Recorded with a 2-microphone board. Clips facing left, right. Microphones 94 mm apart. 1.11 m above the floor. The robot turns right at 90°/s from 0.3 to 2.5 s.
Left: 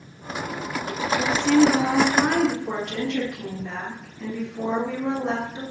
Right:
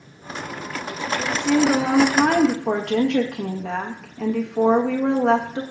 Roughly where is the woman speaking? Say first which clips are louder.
Left 2 dB; behind.